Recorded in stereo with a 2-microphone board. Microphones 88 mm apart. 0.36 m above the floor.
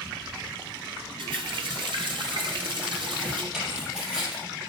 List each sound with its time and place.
1.2 s a running tap: 70° right (ahead or behind), 2 m
3.5 s tearing paper: 10° right (ahead or behind), 5 m